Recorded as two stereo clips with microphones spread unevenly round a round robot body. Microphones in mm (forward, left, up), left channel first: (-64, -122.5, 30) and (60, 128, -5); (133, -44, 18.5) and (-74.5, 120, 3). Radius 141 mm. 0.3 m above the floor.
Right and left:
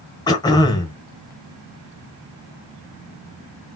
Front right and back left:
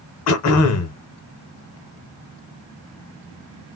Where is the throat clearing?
40° right, 0.9 m.